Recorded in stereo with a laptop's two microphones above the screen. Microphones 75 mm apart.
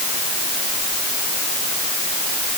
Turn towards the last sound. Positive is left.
No sound to turn to.